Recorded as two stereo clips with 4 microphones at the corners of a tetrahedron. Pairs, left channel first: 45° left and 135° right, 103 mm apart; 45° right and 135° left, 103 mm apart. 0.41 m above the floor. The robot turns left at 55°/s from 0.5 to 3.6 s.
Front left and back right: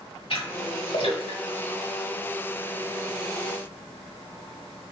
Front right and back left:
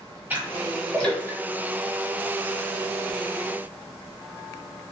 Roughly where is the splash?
Ahead left.